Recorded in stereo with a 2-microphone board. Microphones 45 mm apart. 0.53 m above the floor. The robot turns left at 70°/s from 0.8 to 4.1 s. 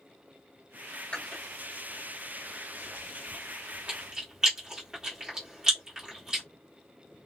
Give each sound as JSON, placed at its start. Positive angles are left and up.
{"t": 1.1, "sound": "chewing", "side_deg": 30, "distance_m": 1.5}